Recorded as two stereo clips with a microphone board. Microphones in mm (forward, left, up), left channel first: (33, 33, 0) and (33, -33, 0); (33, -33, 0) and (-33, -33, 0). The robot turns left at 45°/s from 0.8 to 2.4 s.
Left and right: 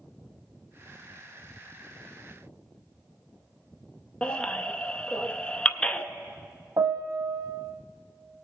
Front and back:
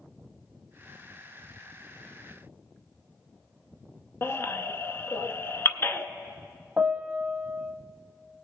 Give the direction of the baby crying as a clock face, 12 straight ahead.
11 o'clock.